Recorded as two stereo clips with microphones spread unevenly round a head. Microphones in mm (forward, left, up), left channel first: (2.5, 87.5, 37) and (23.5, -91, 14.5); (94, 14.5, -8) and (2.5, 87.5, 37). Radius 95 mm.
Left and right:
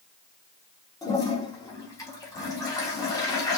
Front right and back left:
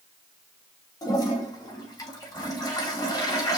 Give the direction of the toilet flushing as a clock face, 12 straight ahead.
11 o'clock.